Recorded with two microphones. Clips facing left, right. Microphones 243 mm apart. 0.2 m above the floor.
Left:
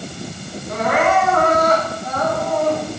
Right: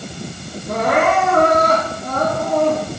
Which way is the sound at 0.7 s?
70° right (ahead or behind).